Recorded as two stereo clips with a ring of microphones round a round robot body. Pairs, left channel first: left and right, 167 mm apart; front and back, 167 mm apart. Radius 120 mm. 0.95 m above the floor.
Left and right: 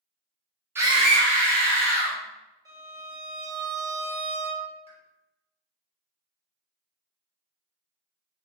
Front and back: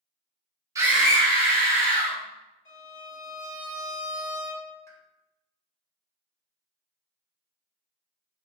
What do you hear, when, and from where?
0.8 s a scream: 145° right, 0.6 m; by 2.2 s 55° right, 1.6 m
2.6 s a violin: 20° right, 1.8 m
4.9 s a pop: 65° left, 1.1 m